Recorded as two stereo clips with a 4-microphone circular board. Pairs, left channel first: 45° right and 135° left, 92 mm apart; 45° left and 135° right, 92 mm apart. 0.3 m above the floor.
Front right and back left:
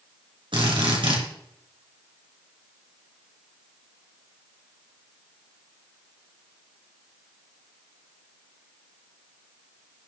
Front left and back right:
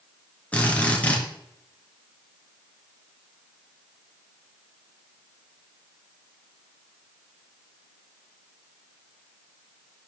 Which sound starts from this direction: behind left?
A drill, at 0.5 s.